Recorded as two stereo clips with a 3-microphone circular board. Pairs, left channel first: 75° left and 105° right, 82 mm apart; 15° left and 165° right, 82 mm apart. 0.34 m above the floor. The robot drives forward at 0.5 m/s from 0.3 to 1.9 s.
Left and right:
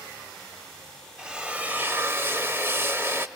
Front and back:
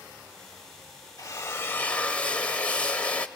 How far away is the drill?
About 0.7 m.